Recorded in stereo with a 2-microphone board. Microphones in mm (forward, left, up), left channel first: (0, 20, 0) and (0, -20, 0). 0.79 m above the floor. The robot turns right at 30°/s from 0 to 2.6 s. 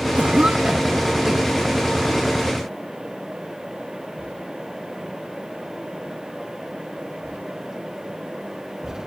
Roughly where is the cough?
Right.